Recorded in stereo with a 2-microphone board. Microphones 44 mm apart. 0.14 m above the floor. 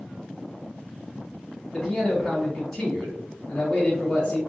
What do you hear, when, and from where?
1.7 s a man speaking: 5° left (ahead or behind), 1.5 m